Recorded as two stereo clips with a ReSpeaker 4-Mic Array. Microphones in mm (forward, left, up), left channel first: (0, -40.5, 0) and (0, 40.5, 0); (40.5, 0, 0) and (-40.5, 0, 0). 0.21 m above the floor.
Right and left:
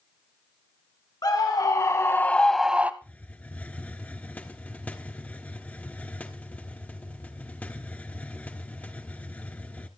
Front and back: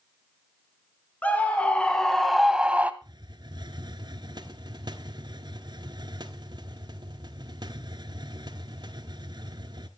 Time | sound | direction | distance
1.2 | a scream | 70° right | 2 m
3.0 | a hiss | 160° right | 1.3 m